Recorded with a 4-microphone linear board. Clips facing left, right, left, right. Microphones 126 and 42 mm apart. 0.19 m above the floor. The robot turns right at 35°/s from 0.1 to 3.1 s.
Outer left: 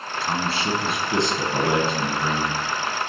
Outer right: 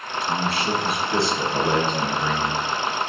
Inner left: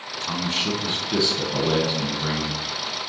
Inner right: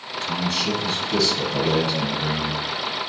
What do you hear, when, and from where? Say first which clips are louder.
0.2 s a man speaking: outer right 1 dB, inner right 1 dB; 105° left, 1.3 m; by 2.6 s 170° right, 1.3 m